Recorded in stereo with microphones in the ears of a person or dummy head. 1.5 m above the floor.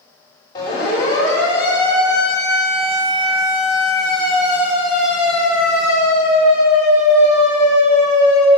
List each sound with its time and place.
0.6 s a siren: 20° left (ahead or behind), 5.5 m; by 8.5 s 20° right (ahead or behind), 6.5 m